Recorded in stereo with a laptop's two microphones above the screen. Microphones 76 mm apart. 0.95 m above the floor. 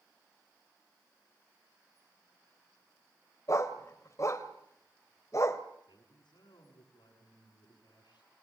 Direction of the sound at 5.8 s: 85° left.